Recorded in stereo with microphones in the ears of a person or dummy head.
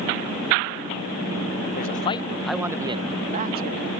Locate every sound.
1.8 s a man speaking: 45° left (ahead or behind); by 3.9 s 55° right (ahead or behind)